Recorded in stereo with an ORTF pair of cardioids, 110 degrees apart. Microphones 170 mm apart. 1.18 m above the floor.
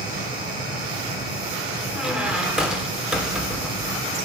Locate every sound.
0.0 s a fan: 60° right, 6 m
1.9 s a squeak: 5° right, 2 m